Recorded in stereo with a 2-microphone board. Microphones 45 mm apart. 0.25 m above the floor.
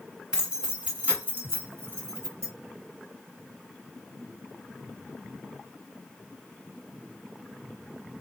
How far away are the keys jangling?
About 2 m.